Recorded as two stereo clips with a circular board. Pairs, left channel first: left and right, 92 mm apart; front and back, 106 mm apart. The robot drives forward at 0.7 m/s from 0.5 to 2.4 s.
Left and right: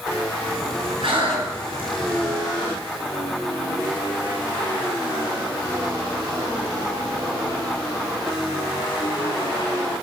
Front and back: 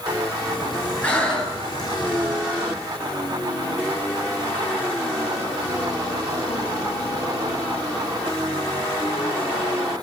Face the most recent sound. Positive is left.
turn(degrees=-90)